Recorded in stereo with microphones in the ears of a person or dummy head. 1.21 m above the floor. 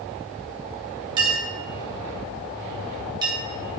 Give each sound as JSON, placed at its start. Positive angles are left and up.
{"t": 1.2, "sound": "a clink", "side_deg": -25, "distance_m": 2.5}